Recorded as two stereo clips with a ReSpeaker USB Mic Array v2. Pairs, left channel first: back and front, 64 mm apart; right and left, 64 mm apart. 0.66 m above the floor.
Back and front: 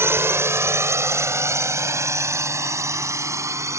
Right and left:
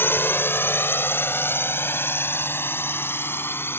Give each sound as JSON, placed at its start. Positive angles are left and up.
{"t": 0.0, "sound": "a drone", "azimuth_deg": -40}